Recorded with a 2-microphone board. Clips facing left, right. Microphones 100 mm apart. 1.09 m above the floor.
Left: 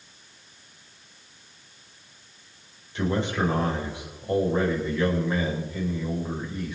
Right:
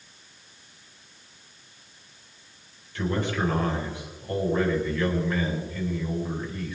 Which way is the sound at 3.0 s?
20° left (ahead or behind).